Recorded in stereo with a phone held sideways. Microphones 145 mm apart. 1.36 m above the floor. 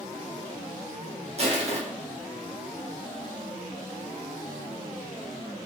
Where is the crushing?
45° right (ahead or behind), 0.6 m.